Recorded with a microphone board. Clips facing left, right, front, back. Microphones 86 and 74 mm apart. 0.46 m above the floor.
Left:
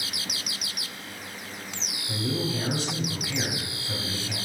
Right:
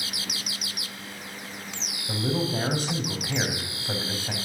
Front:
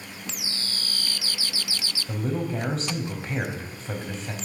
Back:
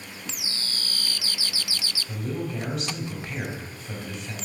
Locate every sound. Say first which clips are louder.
2.1 s a man speaking: right 2 dB, front 4 dB; 55° right, 3 m